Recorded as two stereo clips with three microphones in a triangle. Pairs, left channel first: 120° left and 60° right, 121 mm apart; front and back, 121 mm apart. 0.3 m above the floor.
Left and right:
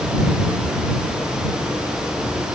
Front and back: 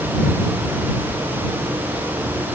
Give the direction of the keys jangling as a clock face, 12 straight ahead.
I don't hear keys jangling.